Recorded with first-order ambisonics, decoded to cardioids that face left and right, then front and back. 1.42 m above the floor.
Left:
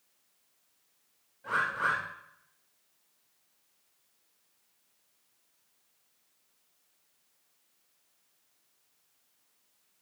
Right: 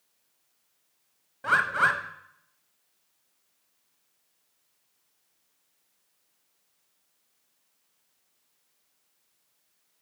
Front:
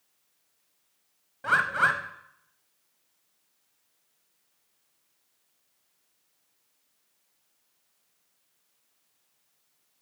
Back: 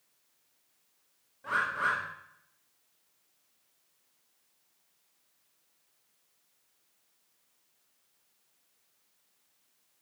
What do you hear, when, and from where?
1.4 s a bird: 55° right, 0.7 m